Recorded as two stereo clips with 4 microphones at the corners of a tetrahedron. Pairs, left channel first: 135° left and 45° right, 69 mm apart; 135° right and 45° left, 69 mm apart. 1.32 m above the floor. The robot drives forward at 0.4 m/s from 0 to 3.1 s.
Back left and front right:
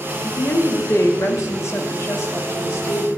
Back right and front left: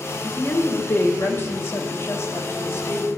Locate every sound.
0.2 s a woman speaking: 175° left, 1.6 m